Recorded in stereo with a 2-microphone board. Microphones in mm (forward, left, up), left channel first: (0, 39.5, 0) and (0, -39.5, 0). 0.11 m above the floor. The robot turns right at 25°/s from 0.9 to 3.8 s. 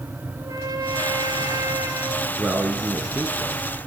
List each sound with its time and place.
0.4 s a trumpet: 75° right, 1.7 m; by 2.3 s 45° right, 1.7 m
2.4 s a man speaking: 20° right (ahead or behind), 1.6 m; by 3.9 s 15° right (ahead or behind), 1.6 m